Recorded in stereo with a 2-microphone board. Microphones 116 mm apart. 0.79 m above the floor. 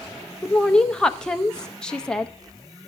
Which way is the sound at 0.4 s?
5° left (ahead or behind).